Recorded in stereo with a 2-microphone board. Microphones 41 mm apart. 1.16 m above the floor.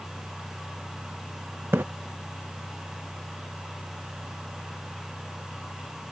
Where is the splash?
65° right (ahead or behind).